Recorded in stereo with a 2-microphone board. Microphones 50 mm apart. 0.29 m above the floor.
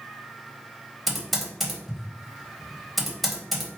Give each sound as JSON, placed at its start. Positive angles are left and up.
{"t": 1.1, "sound": "typing on a keyboard", "side_deg": 0, "distance_m": 1.8}